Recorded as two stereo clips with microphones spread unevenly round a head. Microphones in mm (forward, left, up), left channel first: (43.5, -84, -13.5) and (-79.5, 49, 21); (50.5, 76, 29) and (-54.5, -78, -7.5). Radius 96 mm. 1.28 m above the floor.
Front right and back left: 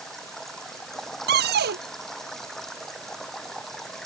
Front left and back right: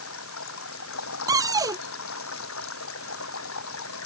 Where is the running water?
40° left.